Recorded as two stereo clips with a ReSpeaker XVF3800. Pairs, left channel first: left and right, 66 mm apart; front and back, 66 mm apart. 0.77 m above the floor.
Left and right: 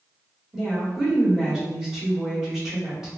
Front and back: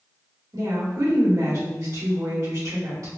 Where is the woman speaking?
170° right, 1.7 m.